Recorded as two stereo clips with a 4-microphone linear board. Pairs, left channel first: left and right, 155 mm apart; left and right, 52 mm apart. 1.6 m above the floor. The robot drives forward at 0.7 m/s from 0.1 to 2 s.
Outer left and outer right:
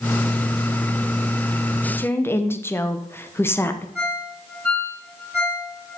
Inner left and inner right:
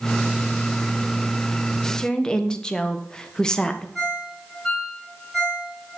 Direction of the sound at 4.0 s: Centre (ahead or behind).